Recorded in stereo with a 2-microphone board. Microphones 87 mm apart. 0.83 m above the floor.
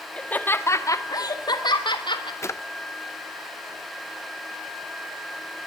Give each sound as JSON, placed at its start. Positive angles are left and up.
{"t": 0.2, "sound": "laughter", "side_deg": 15, "distance_m": 1.9}
{"t": 2.4, "sound": "a drawer", "side_deg": 35, "distance_m": 0.7}